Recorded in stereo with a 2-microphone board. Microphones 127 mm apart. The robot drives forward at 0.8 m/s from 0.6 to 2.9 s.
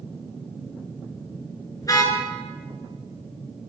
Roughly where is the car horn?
Left.